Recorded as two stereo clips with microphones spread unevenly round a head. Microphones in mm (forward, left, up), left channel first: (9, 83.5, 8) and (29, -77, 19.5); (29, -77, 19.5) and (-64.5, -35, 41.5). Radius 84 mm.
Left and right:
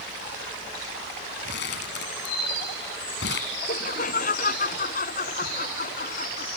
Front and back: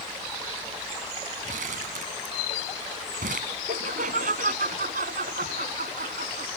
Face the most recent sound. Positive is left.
turn(degrees=145)